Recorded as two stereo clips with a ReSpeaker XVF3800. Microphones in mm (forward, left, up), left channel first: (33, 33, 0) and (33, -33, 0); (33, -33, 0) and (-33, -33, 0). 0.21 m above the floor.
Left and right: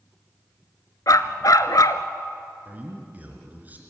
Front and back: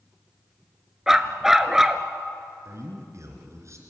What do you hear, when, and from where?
1.1 s a dog barking: 100° left, 0.9 m
2.6 s a man speaking: 150° right, 3 m